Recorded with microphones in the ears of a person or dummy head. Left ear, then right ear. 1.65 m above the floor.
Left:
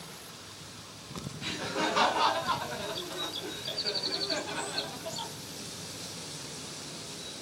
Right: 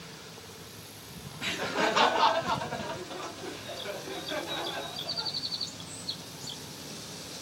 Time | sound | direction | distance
1.4 | laughter | 25° right (ahead or behind) | 0.7 m